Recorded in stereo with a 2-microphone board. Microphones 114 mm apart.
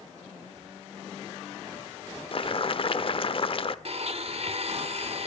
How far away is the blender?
About 1.3 m.